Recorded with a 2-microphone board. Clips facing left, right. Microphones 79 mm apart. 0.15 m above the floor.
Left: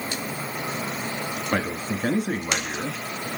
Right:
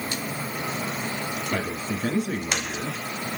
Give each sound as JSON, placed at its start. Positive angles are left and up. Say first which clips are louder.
{"t": 1.5, "sound": "a man speaking", "louder": "left 4 dB", "side_deg": 45, "distance_m": 2.0}